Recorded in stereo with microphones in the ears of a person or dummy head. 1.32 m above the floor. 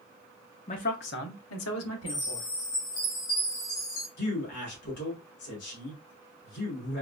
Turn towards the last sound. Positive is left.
turn(degrees=55)  # may be behind; listen again after turning